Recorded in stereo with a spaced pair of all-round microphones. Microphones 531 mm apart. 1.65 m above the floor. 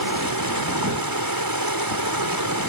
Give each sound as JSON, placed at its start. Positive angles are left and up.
{"t": 0.0, "sound": "running water", "side_deg": -40}